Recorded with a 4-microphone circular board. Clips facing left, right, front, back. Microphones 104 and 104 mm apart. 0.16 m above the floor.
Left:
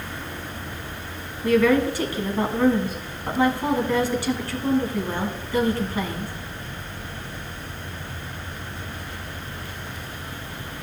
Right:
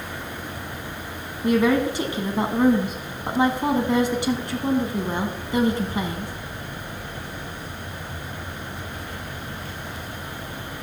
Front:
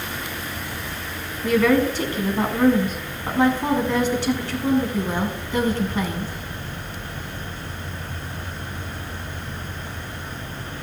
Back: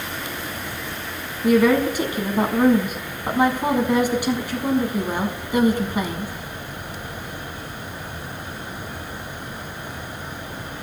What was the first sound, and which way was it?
A woman speaking, 120° right.